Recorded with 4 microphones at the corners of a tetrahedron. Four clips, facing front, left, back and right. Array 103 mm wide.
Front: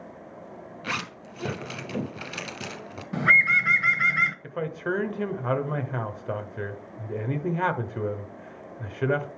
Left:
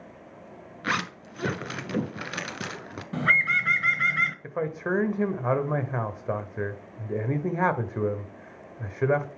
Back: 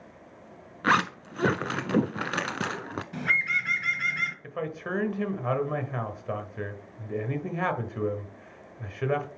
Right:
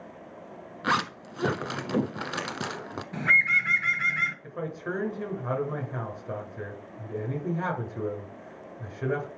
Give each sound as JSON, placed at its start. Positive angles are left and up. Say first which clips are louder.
{"t": 0.8, "sound": "a zipper", "louder": "right 2 dB, back 10 dB", "azimuth_deg": -165, "distance_m": 0.9}
{"t": 3.1, "sound": "a bird", "louder": "even, front 7 dB", "azimuth_deg": 30, "distance_m": 1.0}
{"t": 4.4, "sound": "a man speaking", "louder": "left 5 dB, front 4 dB", "azimuth_deg": 85, "distance_m": 1.2}